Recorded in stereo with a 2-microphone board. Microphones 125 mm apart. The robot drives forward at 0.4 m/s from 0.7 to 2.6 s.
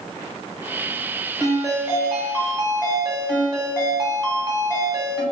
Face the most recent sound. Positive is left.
turn(degrees=-40)  # may be behind; listen again after turning